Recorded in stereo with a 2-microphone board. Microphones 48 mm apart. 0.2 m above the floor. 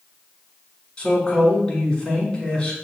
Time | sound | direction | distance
1.0 | a man speaking | 20° left (ahead or behind) | 1.6 m